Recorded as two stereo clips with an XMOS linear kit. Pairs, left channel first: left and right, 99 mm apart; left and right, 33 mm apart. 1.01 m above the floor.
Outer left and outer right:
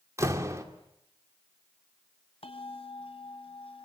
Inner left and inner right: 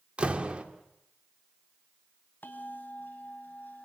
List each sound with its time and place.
0.2 s a door slam: 30° right (ahead or behind), 2.5 m
2.4 s a bell: 70° left (ahead or behind), 2 m